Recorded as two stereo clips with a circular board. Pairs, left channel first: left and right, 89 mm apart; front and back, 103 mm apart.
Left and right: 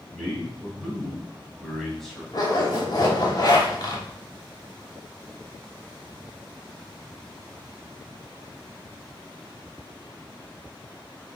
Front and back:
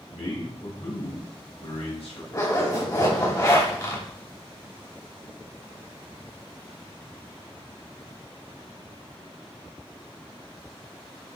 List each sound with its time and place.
0.1 s a man speaking: straight ahead, 3 m
2.3 s a zipper: 50° left, 2.5 m